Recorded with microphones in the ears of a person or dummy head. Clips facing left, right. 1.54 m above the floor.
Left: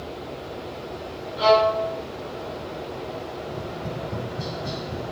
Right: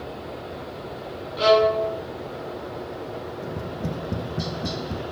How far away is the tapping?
About 2 m.